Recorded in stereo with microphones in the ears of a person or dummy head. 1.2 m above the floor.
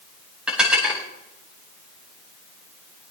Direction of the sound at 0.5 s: Centre (ahead or behind).